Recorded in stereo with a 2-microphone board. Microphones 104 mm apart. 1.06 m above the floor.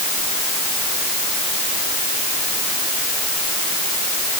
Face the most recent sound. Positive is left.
No sound to turn to.